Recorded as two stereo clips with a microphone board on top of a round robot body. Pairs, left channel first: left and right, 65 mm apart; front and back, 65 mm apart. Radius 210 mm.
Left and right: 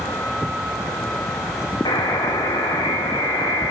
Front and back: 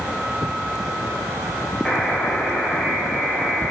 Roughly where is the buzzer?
Left.